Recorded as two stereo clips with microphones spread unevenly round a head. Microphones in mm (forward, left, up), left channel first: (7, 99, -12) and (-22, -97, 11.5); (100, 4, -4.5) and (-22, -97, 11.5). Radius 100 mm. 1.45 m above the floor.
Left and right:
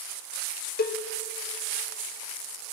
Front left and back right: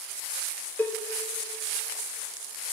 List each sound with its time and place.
0.8 s a cowbell: 120° left, 0.7 m